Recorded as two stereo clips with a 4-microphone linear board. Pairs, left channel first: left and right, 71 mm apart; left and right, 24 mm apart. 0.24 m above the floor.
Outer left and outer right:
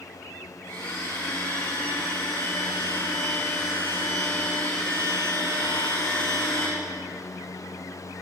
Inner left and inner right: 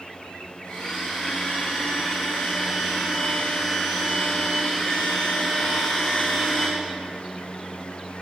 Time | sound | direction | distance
0.6 | a blender | 45° left (ahead or behind) | 7.5 m